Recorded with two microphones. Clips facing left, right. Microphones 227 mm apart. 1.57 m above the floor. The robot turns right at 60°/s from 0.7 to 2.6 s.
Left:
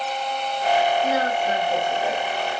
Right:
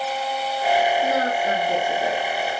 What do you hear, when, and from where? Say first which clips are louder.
1.0 s a woman speaking: right 1 dB; 45° right (ahead or behind), 1.4 m; by 2.6 s 35° right (ahead or behind), 1.4 m